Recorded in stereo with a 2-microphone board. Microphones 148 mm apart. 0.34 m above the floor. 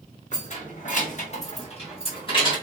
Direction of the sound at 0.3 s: 55° left (ahead or behind).